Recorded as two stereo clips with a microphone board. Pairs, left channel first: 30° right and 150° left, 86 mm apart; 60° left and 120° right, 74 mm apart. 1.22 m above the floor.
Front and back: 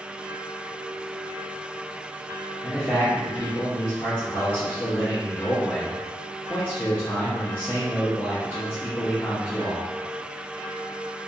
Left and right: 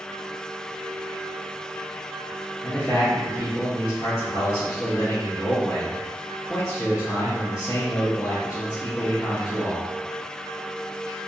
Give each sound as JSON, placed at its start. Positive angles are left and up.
{"t": 2.6, "sound": "a man speaking", "azimuth_deg": 40, "distance_m": 0.7}